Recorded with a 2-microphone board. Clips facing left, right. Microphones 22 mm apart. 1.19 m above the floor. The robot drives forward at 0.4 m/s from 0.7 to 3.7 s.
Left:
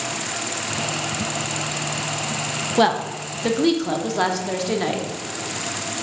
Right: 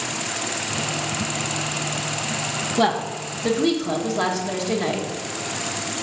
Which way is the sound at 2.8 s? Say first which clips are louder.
Left 3 dB; 35° left (ahead or behind).